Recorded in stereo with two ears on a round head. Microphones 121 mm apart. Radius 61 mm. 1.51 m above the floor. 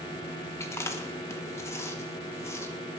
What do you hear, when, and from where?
0.6 s chewing: 20° left (ahead or behind), 1.3 m